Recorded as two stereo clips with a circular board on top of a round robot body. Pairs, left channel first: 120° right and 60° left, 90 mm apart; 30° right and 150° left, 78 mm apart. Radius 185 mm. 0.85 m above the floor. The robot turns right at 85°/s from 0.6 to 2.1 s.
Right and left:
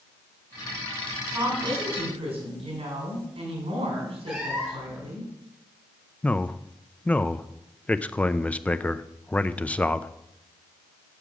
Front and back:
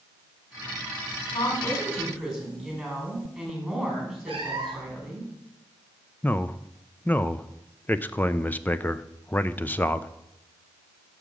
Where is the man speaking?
65° right, 0.7 m.